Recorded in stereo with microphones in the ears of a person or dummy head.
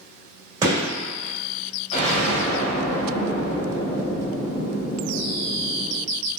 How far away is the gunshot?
About 2.0 m.